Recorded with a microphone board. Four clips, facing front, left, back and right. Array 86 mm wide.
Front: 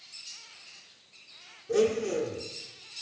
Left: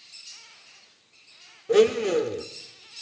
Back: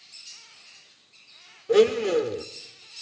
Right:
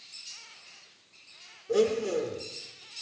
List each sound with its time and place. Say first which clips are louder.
1.7 s a blender: left 6 dB, back 7 dB; 130° left, 1.0 m